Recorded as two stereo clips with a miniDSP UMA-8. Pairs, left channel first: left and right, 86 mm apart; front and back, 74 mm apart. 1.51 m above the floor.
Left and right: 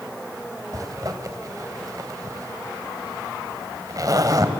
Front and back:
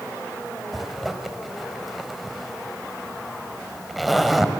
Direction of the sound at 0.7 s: 90° right.